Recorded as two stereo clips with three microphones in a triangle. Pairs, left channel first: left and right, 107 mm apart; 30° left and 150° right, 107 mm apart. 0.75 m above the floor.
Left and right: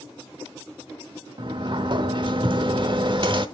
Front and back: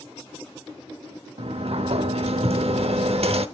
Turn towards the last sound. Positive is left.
turn(degrees=-130)